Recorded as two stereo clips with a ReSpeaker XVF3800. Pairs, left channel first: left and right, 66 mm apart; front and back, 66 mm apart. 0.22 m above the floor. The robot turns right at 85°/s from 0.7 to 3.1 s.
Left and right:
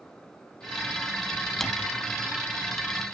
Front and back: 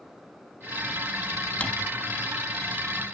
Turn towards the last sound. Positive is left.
turn(degrees=140)